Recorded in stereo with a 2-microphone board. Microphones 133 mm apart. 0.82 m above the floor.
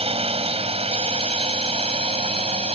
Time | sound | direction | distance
0.0 | a drone | 45° right (ahead or behind) | ?